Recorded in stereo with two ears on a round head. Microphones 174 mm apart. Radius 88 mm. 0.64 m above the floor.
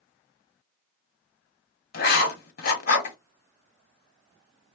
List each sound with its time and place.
1.9 s writing: 50° left (ahead or behind), 1.1 m